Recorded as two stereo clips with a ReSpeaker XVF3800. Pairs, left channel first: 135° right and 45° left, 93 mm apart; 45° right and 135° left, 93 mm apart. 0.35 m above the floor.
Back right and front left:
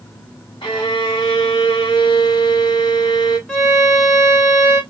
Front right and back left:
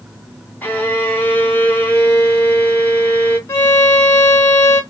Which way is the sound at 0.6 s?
115° right.